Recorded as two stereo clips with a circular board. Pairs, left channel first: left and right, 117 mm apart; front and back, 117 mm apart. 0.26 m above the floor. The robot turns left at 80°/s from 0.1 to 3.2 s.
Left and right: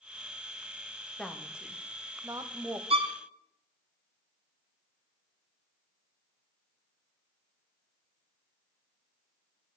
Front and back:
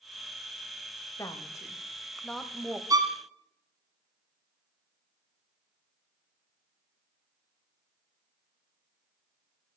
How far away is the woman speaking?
About 1.1 m.